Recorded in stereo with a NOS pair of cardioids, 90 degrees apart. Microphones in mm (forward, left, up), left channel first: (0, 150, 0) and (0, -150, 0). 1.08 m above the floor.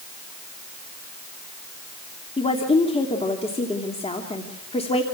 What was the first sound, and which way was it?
A woman speaking, 20° left.